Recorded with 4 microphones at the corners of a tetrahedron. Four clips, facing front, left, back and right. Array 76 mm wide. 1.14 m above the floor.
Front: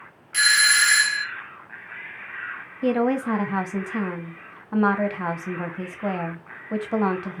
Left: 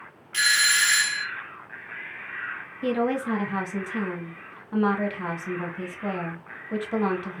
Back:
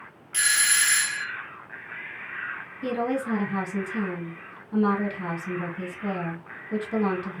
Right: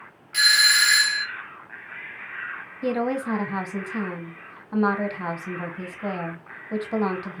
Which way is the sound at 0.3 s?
30° right.